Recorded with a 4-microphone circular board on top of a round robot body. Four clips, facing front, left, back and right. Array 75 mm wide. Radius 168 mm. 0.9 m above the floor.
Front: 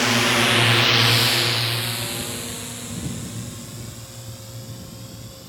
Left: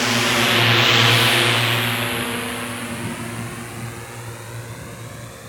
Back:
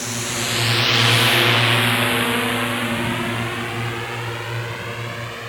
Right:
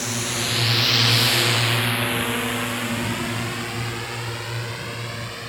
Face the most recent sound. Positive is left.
turn(degrees=-160)